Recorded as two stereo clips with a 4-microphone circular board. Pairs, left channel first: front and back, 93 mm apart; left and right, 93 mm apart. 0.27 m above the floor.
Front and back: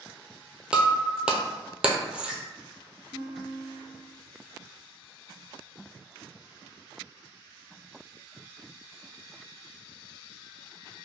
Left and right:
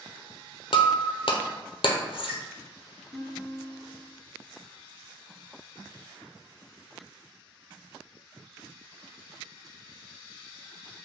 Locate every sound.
0.7 s breaking glass: 100° left, 0.5 m
3.1 s a guitar: 145° right, 0.9 m